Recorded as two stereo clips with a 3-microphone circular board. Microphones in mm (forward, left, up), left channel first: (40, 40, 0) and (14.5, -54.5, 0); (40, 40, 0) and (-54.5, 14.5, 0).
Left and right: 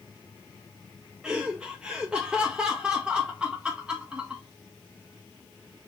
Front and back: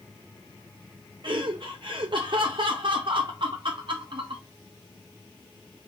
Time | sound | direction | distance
1.2 | laughter | 175° left | 0.5 m